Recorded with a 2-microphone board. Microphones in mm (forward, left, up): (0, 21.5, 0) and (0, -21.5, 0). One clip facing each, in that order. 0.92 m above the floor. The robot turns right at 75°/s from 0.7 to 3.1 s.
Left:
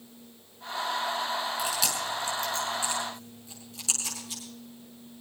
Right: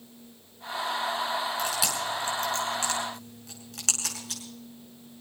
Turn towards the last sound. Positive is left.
turn(degrees=-75)  # may be behind; listen again after turning